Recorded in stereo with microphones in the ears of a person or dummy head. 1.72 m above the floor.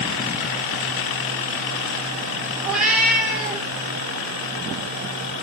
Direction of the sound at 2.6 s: 5° right (ahead or behind).